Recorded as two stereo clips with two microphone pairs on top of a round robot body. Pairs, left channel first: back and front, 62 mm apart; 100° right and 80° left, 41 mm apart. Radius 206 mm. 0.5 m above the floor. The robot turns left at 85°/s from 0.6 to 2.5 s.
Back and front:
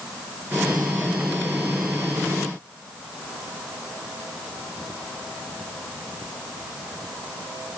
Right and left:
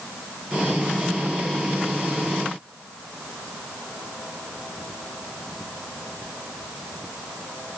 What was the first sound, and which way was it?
Only background noise.